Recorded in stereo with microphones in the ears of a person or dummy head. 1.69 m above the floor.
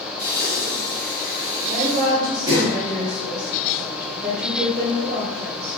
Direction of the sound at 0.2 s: 20° right (ahead or behind).